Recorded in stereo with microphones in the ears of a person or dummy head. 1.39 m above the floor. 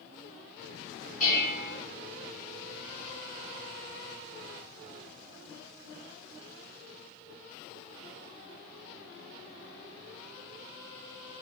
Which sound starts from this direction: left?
Dishes clattering, at 1.2 s.